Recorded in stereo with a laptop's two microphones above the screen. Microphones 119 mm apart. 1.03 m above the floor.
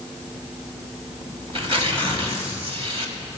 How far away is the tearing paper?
About 1.4 m.